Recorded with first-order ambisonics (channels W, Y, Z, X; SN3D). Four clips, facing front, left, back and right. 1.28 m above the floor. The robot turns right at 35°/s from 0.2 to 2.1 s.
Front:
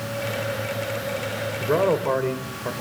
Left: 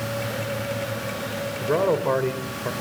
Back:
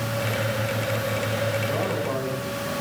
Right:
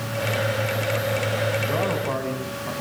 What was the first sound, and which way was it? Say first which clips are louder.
A man speaking: left 3 dB, front 5 dB; 35° left.